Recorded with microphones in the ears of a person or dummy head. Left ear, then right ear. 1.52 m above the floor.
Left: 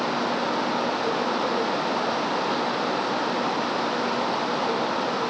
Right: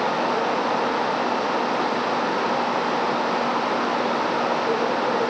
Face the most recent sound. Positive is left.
No sound to turn to.